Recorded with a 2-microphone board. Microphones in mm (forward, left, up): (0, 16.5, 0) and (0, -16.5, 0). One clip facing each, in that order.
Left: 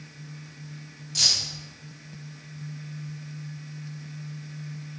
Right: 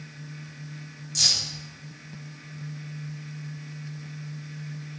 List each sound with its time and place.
1.1 s keys jangling: 20° left (ahead or behind), 5 m